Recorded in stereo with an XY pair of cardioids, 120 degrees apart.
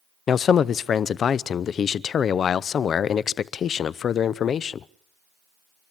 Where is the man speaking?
45° left, 0.7 m.